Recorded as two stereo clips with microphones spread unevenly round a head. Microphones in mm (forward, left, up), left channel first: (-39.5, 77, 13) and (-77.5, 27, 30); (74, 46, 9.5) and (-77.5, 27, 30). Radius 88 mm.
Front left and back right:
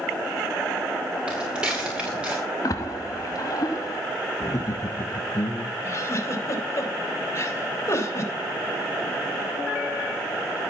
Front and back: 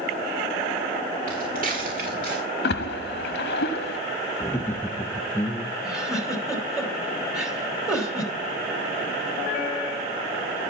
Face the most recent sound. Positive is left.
turn(degrees=100)